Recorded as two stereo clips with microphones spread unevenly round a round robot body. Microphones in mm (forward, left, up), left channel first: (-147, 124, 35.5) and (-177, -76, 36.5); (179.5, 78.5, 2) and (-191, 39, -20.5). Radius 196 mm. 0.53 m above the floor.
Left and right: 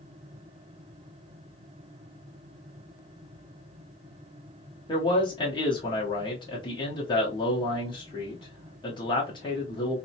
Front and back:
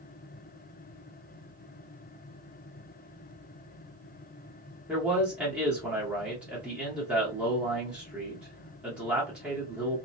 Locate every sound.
4.9 s a man speaking: 110° left, 0.9 m